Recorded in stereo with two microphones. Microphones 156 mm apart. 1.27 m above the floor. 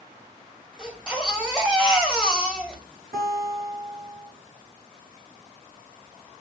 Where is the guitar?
80° right, 5 m.